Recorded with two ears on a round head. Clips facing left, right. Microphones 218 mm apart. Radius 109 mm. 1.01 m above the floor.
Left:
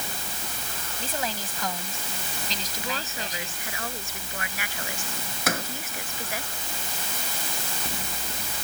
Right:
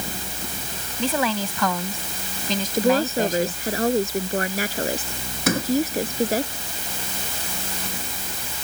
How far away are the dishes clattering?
I don't hear dishes clattering.